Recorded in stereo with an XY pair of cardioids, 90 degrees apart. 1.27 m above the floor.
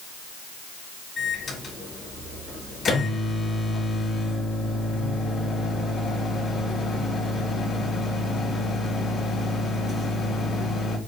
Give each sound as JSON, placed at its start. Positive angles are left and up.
{"t": 1.2, "sound": "a microwave", "azimuth_deg": 45, "distance_m": 3.5}